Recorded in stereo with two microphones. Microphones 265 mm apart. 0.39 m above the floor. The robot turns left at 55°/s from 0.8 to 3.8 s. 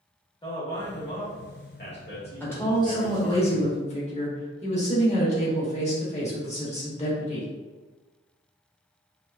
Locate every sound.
0.4 s a man speaking: 150° left, 1.1 m; by 3.4 s 10° left, 1.1 m
2.4 s a woman speaking: 10° left (ahead or behind), 0.8 m; by 7.5 s 25° left (ahead or behind), 0.8 m